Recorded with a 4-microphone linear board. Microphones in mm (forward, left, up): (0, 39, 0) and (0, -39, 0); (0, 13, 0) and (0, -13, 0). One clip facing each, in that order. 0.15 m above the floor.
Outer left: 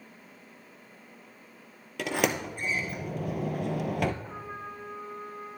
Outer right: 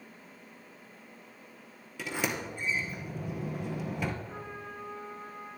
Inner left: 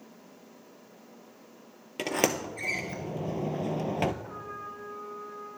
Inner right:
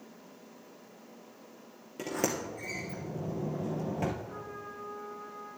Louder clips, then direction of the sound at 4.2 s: Outer left 2 dB, inner left 3 dB; 50° left (ahead or behind).